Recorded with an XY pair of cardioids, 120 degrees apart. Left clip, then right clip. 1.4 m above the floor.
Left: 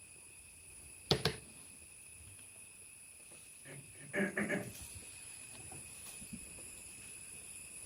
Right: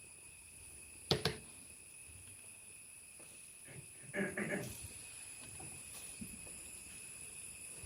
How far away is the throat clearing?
About 4.5 m.